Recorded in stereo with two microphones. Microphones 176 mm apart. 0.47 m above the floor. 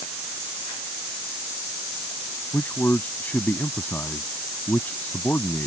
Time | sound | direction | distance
2.5 | a man speaking | 10° left (ahead or behind) | ?